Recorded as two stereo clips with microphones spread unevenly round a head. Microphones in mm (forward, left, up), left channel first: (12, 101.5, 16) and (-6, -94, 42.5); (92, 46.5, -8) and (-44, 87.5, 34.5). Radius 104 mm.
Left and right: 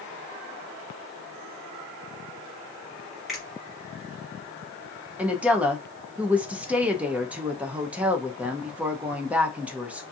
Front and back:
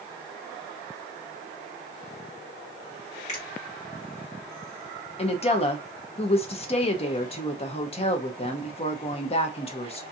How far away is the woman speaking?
About 0.5 m.